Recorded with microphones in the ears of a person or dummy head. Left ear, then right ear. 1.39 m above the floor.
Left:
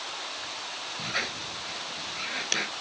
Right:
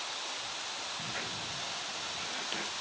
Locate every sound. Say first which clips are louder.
1.0 s a squeak: left 6 dB; 90° left